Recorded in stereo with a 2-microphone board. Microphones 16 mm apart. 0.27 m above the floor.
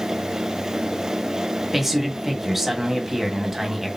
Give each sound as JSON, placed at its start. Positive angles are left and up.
{"t": 1.7, "sound": "a man speaking", "side_deg": -20, "distance_m": 1.5}